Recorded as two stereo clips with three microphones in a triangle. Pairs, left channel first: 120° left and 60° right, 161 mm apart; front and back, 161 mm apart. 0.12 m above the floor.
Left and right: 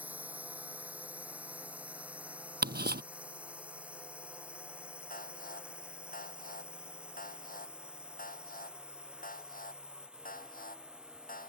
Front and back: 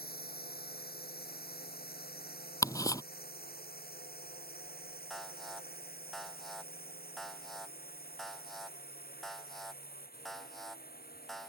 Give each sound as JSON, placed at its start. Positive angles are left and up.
{"t": 0.0, "sound": "a drone", "azimuth_deg": 20}
{"t": 2.6, "sound": "ticking", "azimuth_deg": -70}
{"t": 5.1, "sound": "an alarm", "azimuth_deg": 90}